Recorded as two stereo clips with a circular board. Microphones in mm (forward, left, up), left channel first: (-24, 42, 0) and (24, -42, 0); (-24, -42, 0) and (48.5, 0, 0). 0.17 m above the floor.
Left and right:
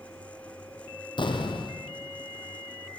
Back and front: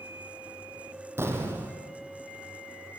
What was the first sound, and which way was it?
An explosion, 90° left.